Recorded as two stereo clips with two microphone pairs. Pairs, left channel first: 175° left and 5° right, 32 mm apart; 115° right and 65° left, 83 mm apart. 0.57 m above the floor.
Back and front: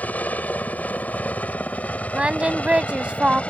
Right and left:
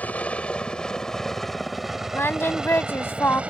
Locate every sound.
0.0 s a helicopter: 175° left; by 3.5 s 135° left
2.1 s singing: 55° right